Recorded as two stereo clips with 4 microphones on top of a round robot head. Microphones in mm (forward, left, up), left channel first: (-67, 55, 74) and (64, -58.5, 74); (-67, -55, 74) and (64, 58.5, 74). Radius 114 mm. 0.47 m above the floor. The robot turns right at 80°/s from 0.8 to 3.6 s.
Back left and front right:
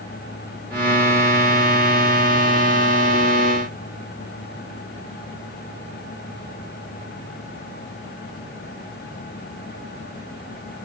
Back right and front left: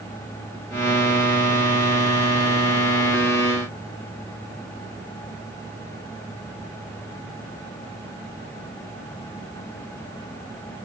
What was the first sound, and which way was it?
Only background noise.